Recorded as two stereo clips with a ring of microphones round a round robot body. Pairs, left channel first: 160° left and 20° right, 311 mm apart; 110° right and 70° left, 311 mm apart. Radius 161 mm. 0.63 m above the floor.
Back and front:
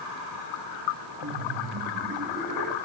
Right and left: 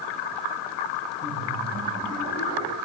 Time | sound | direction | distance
1.2 | laughter | 10° right | 6 m